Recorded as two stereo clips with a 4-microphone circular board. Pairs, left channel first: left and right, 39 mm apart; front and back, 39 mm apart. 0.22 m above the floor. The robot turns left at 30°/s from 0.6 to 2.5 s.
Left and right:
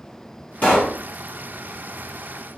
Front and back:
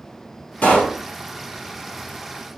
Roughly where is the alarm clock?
No alarm clock in this recording.